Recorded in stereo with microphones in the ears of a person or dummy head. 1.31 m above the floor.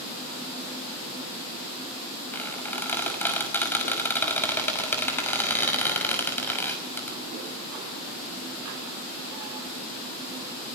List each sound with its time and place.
2.3 s a squeak: 20° left (ahead or behind), 5 m